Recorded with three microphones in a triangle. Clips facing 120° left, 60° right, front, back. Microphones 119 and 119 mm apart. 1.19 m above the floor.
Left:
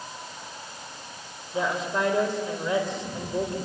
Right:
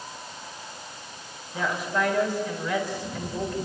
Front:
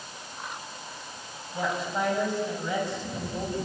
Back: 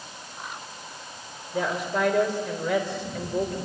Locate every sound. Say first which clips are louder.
1.5 s a woman speaking: left 1 dB, back 3 dB; 175° right, 4.5 m